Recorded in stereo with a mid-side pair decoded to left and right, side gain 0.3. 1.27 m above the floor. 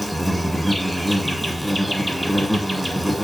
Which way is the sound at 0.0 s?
5° right.